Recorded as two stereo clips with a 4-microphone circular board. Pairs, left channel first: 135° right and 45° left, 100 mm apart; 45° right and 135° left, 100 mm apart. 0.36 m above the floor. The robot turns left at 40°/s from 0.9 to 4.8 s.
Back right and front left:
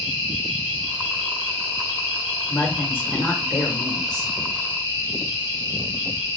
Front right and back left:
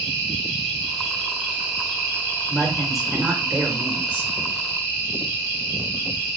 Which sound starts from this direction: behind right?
A woman speaking, at 2.5 s.